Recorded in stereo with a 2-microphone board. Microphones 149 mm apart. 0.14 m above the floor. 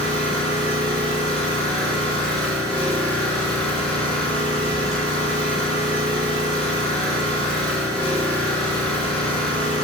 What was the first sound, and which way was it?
An engine running, 5° left (ahead or behind).